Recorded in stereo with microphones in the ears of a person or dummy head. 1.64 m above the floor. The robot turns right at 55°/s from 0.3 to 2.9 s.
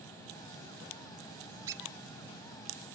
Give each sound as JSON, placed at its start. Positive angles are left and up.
{"t": 1.7, "sound": "a squeak", "side_deg": -10, "distance_m": 0.7}